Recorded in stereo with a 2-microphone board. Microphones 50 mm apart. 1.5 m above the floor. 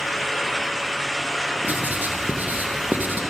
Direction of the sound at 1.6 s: 35° right (ahead or behind).